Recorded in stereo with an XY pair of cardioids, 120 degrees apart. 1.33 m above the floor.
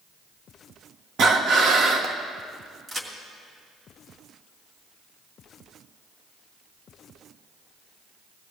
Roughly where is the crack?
Ahead right.